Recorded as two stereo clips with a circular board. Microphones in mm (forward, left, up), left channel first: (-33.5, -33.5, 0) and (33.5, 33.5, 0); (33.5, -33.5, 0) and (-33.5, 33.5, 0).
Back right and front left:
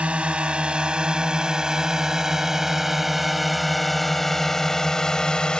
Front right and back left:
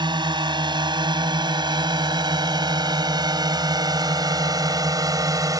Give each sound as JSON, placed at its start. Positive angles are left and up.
{"t": 0.0, "sound": "a drone", "azimuth_deg": 120}